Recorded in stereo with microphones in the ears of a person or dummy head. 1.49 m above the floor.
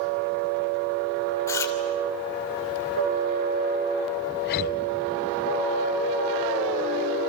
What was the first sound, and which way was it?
Chewing, 15° left (ahead or behind).